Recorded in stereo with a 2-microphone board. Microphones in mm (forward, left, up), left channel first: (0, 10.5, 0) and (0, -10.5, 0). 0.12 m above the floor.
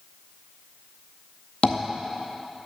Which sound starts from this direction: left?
Tapping, at 1.6 s.